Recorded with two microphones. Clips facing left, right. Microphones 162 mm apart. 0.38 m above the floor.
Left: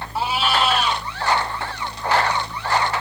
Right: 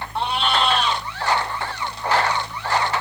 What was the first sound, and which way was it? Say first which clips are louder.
A cat meowing: left 1 dB; 5° left (ahead or behind).